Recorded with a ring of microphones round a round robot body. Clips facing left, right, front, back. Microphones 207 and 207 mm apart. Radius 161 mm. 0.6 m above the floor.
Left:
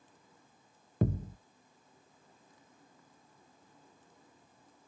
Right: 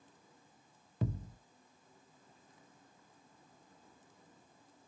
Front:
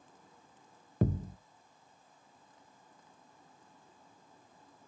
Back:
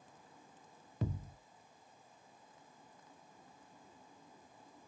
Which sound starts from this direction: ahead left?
A thud, at 1.0 s.